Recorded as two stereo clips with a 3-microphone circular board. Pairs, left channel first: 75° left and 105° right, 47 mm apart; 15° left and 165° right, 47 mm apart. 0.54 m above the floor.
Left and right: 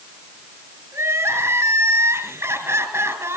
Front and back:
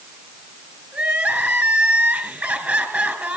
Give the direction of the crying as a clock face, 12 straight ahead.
4 o'clock.